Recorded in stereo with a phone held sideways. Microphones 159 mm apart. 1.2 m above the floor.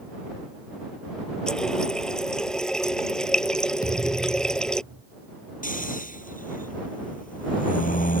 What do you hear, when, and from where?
1.5 s a running tap: 5° left (ahead or behind)
3.8 s a thud: 75° right (ahead or behind)
5.6 s snoring: 60° left (ahead or behind)